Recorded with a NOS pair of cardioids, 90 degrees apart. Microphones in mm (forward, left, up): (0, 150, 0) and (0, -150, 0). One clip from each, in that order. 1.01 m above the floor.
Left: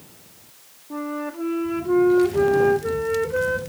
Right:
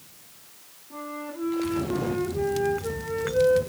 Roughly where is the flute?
Ahead left.